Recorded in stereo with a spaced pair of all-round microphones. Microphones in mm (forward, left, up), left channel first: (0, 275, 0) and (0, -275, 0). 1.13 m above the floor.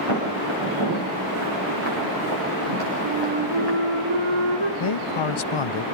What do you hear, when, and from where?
0.1 s footsteps: 60° right (ahead or behind), 10 m; by 3.8 s 45° right (ahead or behind), 8.5 m
3.0 s a flute: 60° right (ahead or behind), 2.5 m
4.8 s a man speaking: 60° left (ahead or behind), 0.6 m